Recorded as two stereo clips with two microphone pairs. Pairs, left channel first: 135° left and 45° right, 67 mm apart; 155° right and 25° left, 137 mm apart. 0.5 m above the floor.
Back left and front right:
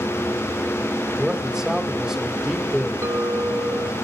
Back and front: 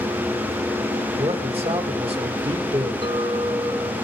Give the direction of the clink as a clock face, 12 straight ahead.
12 o'clock.